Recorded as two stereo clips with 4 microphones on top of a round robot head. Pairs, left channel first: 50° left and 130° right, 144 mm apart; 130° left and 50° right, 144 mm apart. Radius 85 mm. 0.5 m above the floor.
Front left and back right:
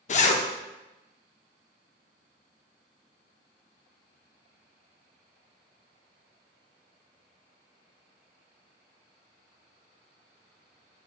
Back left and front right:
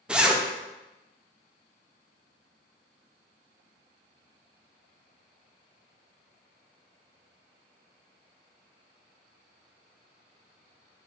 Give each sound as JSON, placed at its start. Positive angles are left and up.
{"t": 0.1, "sound": "a zipper", "azimuth_deg": 30, "distance_m": 0.5}